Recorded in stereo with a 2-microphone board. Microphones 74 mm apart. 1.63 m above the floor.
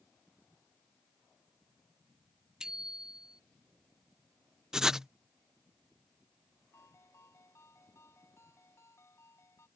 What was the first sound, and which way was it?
A bicycle bell, 10° right (ahead or behind).